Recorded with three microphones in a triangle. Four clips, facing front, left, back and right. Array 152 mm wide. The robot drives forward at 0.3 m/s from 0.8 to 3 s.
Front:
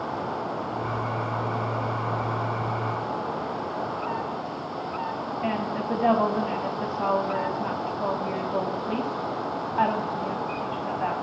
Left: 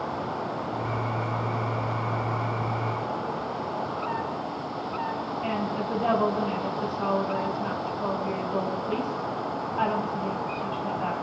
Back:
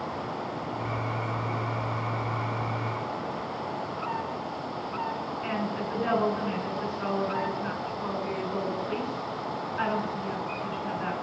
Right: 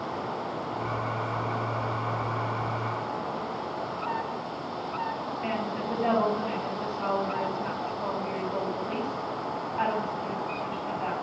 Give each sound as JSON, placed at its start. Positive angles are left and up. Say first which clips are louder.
{"t": 5.4, "sound": "a woman speaking", "louder": "left 2 dB, front 4 dB", "azimuth_deg": 10, "distance_m": 9.5}